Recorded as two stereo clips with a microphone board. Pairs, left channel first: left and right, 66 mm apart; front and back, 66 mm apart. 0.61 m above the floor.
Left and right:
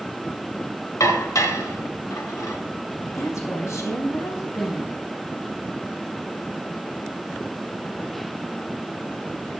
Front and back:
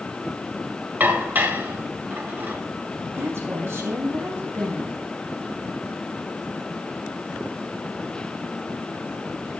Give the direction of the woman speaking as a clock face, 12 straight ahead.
8 o'clock.